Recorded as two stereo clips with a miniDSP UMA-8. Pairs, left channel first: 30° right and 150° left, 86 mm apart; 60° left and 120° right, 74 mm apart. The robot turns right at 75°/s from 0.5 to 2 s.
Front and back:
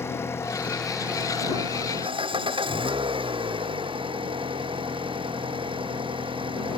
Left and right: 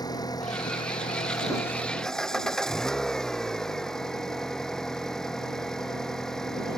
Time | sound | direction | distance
0.0 | an engine running | 30° left | ?